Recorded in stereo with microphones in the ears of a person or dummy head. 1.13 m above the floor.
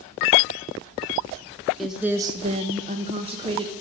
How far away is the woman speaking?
About 0.8 m.